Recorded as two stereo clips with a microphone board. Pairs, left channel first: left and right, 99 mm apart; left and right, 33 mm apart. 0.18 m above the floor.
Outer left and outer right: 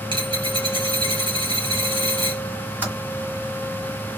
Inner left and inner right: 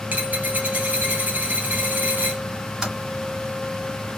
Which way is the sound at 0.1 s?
60° right (ahead or behind).